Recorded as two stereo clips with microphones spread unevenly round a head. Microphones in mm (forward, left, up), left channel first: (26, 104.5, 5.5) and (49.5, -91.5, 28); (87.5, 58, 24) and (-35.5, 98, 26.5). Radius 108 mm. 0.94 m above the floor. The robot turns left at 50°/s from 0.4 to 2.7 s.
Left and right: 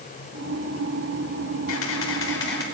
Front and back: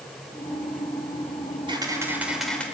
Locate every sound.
1.7 s a camera shutter: 110° left, 4.5 m; by 2.6 s 60° left, 4.5 m